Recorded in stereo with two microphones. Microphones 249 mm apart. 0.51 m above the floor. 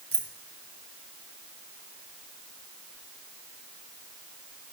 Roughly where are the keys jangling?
Right.